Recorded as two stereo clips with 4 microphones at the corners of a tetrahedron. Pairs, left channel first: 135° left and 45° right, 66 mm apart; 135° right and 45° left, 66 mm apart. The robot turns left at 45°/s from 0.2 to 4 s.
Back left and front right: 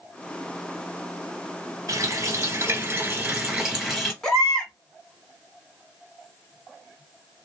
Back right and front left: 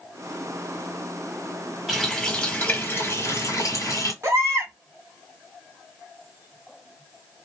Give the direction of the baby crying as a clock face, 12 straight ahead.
10 o'clock.